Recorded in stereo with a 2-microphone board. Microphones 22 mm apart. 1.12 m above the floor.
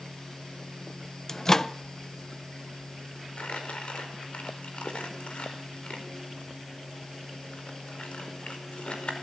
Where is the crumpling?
80° left, 4.5 m.